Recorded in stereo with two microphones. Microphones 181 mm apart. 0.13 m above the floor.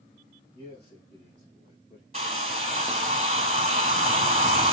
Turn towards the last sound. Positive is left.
turn(degrees=-35)  # may be behind; listen again after turning